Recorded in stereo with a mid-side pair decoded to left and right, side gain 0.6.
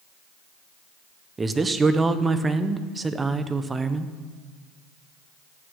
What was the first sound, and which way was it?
A man speaking, 20° right.